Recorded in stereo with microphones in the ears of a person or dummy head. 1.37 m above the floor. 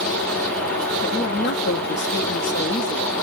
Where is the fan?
15° left (ahead or behind), 1.4 m.